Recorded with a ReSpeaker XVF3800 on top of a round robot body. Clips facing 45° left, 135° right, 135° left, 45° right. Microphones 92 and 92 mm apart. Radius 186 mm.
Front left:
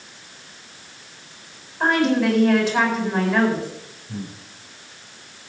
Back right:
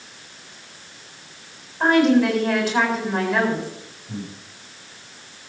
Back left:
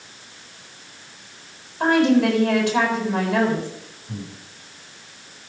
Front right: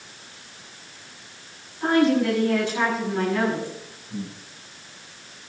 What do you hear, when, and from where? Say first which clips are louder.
1.8 s a woman speaking: back right 3 dB, back left 3 dB; 140° left, 7.5 m
4.1 s breathing: even, front right 1 dB; 165° left, 7.5 m